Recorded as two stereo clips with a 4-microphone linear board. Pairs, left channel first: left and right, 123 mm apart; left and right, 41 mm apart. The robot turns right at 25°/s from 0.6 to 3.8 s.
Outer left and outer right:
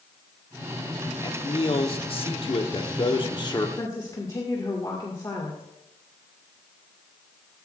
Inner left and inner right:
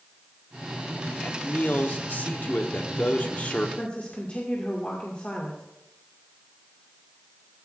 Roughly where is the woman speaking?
Left.